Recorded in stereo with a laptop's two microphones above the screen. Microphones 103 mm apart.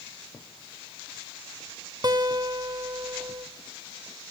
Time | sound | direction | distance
2.0 | a guitar | 40° right (ahead or behind) | 0.9 m